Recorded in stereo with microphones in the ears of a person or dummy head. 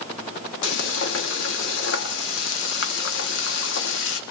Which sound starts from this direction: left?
Frying, at 0.6 s.